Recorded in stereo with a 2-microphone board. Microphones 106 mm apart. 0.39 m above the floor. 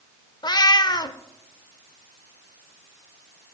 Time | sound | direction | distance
0.4 | a cat meowing | 40° left (ahead or behind) | 0.5 m